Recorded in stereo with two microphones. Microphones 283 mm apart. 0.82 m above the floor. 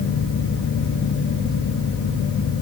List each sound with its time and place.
Only background noise.